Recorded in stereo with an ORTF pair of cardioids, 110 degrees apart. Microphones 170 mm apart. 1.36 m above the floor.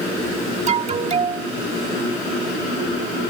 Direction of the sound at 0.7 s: 40° right.